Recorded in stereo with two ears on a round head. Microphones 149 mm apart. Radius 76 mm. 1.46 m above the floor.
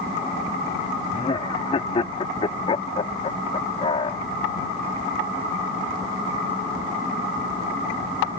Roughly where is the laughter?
Left.